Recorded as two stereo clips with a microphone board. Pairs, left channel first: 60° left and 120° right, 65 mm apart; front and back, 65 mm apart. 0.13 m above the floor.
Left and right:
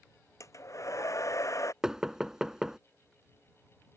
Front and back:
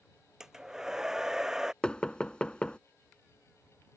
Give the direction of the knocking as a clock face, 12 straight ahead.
2 o'clock.